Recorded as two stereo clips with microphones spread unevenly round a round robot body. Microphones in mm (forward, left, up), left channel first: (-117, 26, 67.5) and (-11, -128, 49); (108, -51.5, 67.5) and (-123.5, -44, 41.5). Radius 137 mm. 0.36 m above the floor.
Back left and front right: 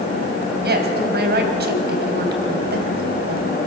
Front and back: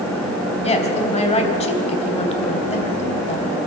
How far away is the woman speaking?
About 3 m.